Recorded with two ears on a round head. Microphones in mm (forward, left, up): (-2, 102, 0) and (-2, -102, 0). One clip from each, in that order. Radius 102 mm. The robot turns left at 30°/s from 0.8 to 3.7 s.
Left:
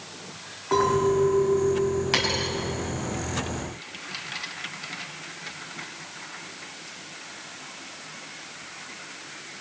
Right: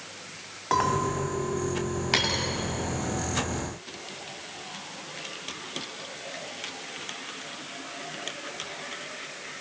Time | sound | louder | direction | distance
0.7 | a clink | left 4 dB | 100° right | 3 m
2.1 | a dropped coin | right 2 dB | 5° right (ahead or behind) | 2.5 m